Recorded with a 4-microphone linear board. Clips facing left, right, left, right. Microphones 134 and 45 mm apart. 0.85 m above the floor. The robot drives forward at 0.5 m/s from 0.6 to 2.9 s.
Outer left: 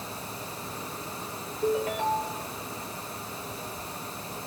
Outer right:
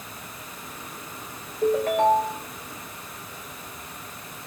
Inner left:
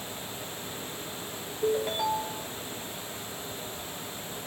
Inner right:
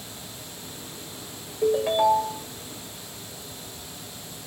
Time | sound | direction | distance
1.6 | a ringtone | 75° right (ahead or behind) | 1.4 m